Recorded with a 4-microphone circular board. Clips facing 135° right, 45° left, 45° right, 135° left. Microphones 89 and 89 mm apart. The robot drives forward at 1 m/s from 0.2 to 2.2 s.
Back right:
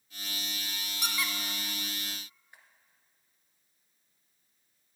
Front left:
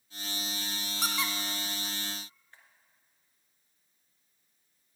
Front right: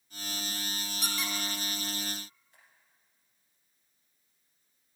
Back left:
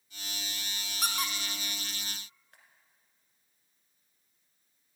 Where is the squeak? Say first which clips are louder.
Front left 2 dB, back left 2 dB; 95° left, 0.8 m; by 2.6 s 145° left, 1.5 m.